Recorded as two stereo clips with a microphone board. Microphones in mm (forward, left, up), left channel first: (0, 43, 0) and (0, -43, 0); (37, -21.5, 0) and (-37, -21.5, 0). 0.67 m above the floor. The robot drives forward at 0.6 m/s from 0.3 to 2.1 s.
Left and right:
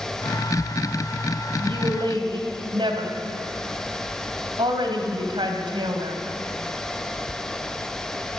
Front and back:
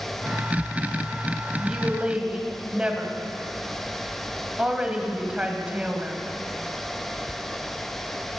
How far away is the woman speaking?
About 3 m.